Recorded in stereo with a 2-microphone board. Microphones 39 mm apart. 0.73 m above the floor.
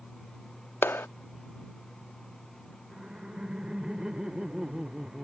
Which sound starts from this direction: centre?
Laughter, at 2.9 s.